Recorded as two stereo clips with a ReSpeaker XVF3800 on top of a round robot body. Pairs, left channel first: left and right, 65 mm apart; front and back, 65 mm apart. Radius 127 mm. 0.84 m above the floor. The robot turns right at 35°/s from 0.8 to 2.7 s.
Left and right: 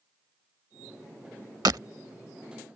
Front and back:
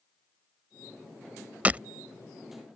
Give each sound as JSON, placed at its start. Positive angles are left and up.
{"t": 1.6, "sound": "breaking glass", "azimuth_deg": -130}